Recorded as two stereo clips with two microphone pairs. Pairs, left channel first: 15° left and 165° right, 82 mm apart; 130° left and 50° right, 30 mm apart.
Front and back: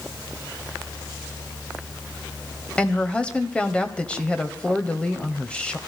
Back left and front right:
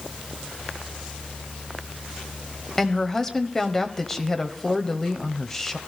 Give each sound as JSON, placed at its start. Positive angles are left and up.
{"t": 2.8, "sound": "a woman speaking", "azimuth_deg": 70, "distance_m": 0.9}